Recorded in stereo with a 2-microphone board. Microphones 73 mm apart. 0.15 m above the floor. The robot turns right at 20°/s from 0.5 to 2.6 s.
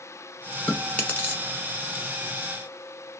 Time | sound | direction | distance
0.7 | chewing | 15° left (ahead or behind) | 1.2 m